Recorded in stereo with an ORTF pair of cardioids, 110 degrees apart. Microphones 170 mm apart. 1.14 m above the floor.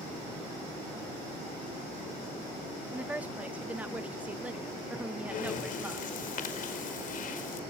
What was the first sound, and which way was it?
A woman speaking, 10° right.